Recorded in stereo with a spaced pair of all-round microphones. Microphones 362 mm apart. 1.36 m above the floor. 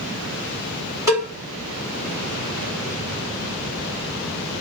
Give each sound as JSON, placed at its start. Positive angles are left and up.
{"t": 1.1, "sound": "a cowbell", "side_deg": -10, "distance_m": 1.3}